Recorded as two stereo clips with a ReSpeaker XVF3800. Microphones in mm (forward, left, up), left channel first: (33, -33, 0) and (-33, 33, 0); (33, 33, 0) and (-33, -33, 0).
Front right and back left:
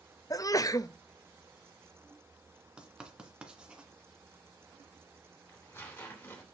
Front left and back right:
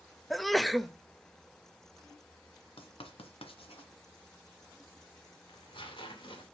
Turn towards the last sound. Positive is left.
turn(degrees=20)